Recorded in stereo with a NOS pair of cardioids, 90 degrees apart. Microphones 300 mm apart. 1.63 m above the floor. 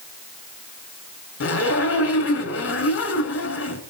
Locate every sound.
1.4 s a zipper: 50° left, 9 m